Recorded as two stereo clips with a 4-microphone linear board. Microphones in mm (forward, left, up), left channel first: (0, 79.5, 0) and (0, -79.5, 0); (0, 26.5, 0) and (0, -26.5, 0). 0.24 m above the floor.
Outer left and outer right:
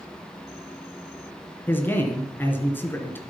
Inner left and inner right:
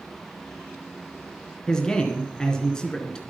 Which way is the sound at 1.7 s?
15° left (ahead or behind).